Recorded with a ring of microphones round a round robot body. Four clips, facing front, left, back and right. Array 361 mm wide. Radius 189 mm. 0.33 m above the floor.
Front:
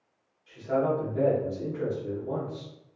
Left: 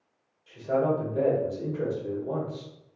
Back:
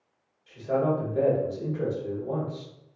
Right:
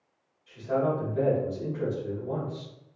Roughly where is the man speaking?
Behind left.